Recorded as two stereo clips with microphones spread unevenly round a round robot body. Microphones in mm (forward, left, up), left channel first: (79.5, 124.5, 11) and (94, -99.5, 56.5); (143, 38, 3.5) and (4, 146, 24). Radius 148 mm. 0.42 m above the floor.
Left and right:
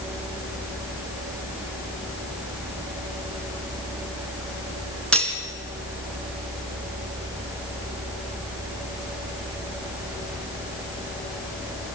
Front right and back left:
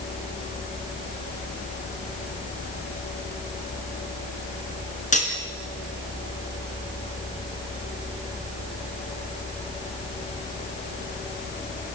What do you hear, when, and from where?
5.1 s cutlery clinking: 10° left, 3.5 m